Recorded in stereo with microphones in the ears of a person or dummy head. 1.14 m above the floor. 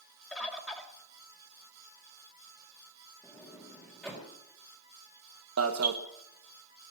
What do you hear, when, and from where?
0.3 s a bird: centre (ahead or behind), 2.0 m
3.2 s a sliding door: 5° right (ahead or behind), 5 m
5.6 s an alarm: 65° right (ahead or behind), 1.4 m